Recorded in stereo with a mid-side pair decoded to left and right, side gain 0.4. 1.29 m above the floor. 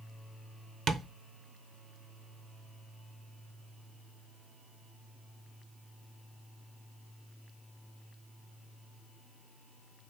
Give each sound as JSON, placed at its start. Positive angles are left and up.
{"t": 0.9, "sound": "tapping", "azimuth_deg": -65, "distance_m": 0.8}